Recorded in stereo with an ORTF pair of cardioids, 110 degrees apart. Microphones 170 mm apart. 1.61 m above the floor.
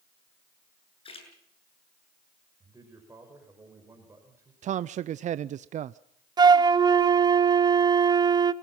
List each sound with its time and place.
1.1 s a splash: 35° left, 7.5 m
2.6 s a man speaking: 15° right, 6 m
4.6 s a man speaking: 45° right, 0.5 m
6.4 s a flute: 25° right, 0.8 m